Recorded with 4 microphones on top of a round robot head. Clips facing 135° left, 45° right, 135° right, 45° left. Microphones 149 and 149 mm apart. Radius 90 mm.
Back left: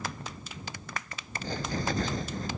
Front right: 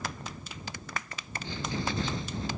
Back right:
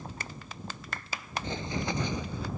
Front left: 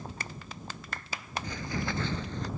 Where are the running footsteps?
170° left; by 2.5 s 145° left.